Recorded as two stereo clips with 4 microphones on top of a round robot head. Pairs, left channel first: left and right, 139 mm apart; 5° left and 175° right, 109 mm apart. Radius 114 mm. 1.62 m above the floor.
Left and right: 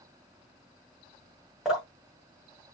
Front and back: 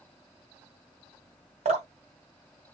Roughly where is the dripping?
Behind.